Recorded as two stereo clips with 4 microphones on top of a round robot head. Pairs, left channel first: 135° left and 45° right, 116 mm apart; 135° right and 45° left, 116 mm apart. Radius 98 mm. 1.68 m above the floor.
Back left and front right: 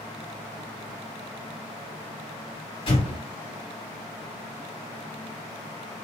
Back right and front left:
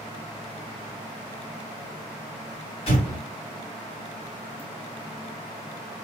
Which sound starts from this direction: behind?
An explosion, at 2.9 s.